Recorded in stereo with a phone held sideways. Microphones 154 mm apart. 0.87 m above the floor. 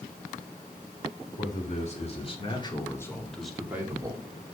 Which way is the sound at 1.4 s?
55° left (ahead or behind).